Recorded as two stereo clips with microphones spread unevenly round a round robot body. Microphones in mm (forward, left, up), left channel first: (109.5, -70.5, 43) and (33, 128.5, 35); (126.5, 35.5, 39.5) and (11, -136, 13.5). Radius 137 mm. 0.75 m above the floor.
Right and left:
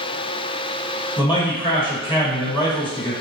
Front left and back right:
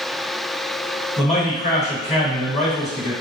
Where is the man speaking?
Straight ahead, 1.5 m.